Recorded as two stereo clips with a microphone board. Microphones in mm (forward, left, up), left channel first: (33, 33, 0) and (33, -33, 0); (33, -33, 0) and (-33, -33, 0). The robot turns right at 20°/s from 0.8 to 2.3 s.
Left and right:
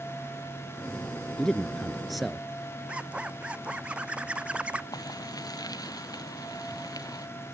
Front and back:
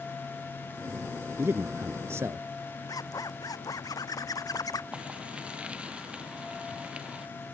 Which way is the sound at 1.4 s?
165° left.